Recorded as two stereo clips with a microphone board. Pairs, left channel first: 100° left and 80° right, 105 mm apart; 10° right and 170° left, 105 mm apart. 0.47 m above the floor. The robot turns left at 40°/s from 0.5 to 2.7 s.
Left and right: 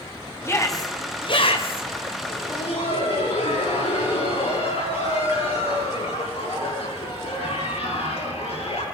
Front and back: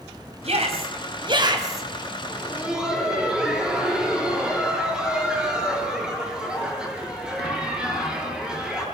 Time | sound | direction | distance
0.4 | a shout | 165° left | 3 m
2.3 | laughter | 105° left | 7.5 m